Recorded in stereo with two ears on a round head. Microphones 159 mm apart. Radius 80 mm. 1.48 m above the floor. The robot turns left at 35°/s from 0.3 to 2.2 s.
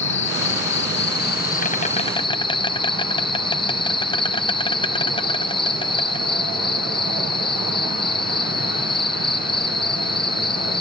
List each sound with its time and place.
0.0 s an insect: 95° left; by 10.8 s 30° left